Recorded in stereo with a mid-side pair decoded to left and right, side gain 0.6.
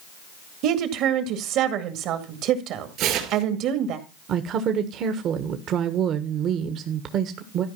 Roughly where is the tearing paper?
Ahead right.